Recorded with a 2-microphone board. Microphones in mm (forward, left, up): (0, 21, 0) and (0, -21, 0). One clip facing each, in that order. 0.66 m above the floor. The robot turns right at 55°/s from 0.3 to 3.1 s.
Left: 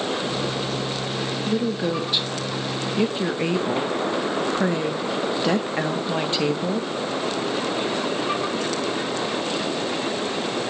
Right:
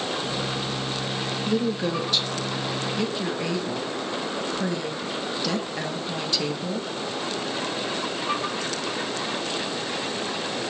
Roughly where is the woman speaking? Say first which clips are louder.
Left 1 dB; centre.